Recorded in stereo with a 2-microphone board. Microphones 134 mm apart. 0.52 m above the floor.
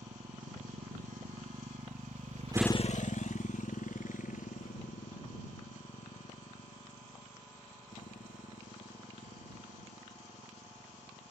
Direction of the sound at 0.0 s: 90° right.